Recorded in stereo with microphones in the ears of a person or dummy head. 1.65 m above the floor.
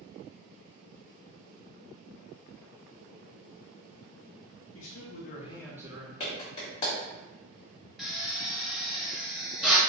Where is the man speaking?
70° left (ahead or behind), 1.0 m; by 6.1 s 40° right (ahead or behind), 0.7 m.